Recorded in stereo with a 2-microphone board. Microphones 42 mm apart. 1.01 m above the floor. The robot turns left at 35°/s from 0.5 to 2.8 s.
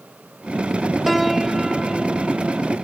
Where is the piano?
Centre (ahead or behind), 0.8 m; by 2.8 s 15° right (ahead or behind), 0.8 m.